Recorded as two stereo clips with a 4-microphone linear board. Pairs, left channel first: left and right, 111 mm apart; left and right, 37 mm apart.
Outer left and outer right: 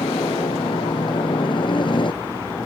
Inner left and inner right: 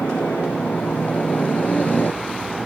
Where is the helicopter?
45° left (ahead or behind).